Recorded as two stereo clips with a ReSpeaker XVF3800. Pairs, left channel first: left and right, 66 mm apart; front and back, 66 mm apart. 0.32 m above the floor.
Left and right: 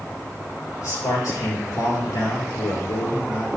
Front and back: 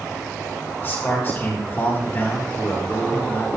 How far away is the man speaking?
About 6 m.